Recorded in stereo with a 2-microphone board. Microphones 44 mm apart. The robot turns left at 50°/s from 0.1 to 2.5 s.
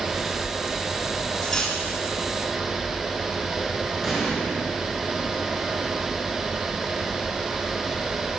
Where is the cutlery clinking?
20° left (ahead or behind), 1.7 m; by 1.8 s centre (ahead or behind), 1.7 m.